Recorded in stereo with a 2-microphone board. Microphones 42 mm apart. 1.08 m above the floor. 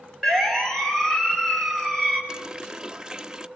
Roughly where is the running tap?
Centre.